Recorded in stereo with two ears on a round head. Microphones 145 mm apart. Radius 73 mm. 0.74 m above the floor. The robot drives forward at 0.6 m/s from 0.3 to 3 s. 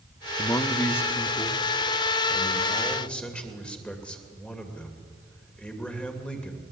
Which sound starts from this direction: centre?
A man speaking, at 0.4 s.